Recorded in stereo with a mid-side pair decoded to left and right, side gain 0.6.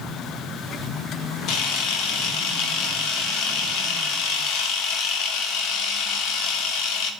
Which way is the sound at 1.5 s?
65° left.